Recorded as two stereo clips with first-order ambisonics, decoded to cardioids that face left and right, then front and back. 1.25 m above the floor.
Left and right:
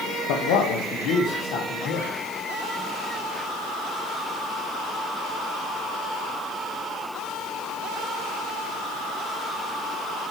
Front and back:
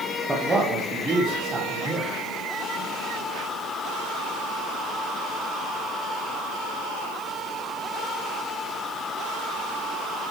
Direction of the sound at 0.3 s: 95° left.